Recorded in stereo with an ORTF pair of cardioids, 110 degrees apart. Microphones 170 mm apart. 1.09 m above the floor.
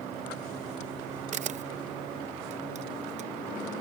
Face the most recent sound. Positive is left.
turn(degrees=-45)